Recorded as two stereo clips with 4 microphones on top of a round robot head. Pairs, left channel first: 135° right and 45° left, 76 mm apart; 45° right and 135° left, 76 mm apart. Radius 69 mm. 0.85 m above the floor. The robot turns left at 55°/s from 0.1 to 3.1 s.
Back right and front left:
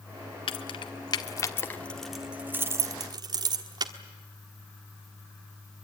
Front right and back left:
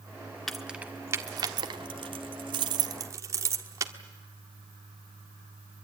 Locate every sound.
0.5 s keys jangling: 135° right, 1.3 m; by 3.9 s 80° left, 1.3 m